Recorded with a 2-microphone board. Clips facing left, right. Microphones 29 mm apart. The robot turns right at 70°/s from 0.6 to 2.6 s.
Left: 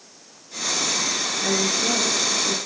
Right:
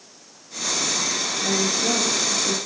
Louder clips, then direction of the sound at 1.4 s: Even; 130° left.